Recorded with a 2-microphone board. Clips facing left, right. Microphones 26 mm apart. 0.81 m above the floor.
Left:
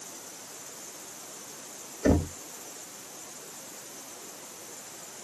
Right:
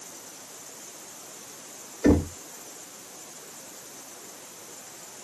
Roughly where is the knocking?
Right.